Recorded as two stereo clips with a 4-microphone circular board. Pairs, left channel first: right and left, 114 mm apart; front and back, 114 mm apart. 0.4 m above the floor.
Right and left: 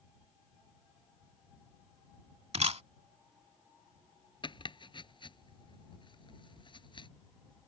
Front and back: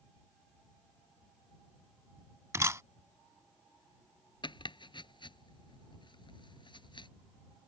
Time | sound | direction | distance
2.5 | a camera shutter | 115° left | ?
4.4 | chopping | 45° right | ?